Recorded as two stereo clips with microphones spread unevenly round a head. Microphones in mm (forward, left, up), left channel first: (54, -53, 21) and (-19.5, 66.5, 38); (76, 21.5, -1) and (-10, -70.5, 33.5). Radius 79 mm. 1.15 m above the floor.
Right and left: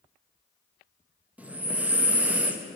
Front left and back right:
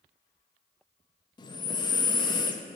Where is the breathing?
40° left, 0.7 m.